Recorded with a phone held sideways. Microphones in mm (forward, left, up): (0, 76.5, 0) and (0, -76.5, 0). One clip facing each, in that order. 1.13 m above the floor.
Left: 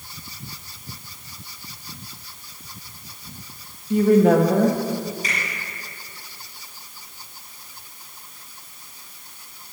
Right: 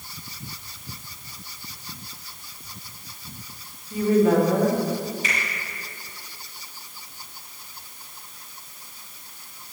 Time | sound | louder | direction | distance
3.9 | a woman speaking | left 4 dB | 65° left (ahead or behind) | 1.5 m
5.2 | a finger snap | even | 40° left (ahead or behind) | 5 m